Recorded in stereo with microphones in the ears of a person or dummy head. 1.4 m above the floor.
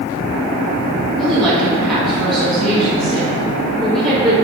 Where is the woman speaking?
Centre (ahead or behind), 2 m.